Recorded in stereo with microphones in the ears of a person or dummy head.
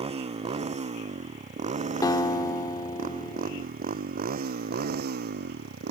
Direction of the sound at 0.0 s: 20° right (ahead or behind).